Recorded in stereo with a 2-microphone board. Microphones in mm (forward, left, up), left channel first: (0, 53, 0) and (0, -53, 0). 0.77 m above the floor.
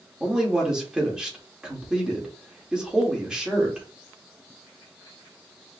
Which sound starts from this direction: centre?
A man speaking, at 0.2 s.